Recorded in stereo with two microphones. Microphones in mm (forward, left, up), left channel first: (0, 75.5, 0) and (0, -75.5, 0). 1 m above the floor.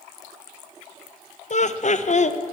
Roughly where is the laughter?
Left.